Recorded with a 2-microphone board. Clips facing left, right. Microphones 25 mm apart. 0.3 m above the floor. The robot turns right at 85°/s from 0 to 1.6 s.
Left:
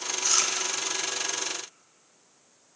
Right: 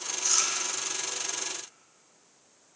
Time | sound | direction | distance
0.2 | chewing | 20° left (ahead or behind) | 0.5 m